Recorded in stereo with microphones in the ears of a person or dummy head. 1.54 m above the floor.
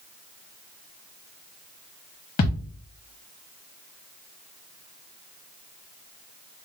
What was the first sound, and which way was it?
A thud, 35° left (ahead or behind).